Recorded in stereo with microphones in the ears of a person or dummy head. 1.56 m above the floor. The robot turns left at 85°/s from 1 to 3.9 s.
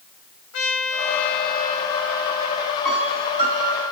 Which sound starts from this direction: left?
A trumpet, at 0.5 s.